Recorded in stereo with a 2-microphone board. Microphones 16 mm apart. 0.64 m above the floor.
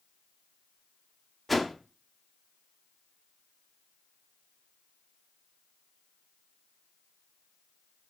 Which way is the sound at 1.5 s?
5° left (ahead or behind).